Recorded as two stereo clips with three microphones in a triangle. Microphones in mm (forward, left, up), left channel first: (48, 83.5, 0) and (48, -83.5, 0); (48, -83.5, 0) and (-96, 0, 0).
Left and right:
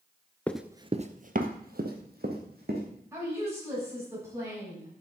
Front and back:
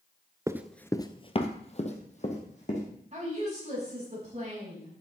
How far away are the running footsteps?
About 0.6 m.